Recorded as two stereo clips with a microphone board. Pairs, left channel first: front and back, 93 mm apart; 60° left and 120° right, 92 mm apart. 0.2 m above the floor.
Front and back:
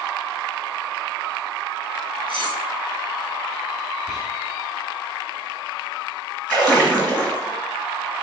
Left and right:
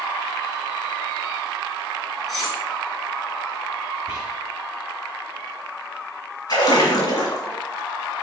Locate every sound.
2.3 s cutlery clinking: 25° right, 2 m
4.1 s whispering: 85° right, 1.3 m
6.5 s a splash: 80° left, 1.6 m